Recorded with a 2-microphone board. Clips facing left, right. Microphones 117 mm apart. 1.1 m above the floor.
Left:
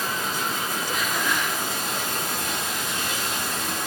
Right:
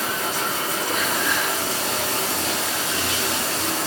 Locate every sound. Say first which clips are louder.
0.0 s running water: right 2 dB; 70° right (ahead or behind), 1.2 m